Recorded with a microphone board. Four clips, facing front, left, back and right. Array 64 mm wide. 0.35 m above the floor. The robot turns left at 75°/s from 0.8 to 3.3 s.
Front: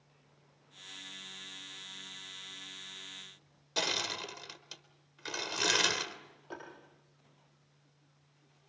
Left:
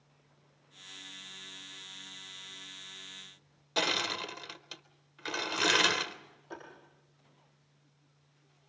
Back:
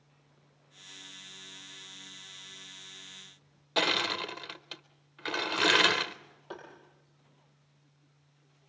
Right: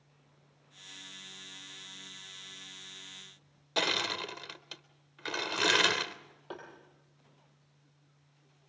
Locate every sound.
3.8 s crushing: 175° right, 0.8 m
6.5 s tapping: 105° right, 8 m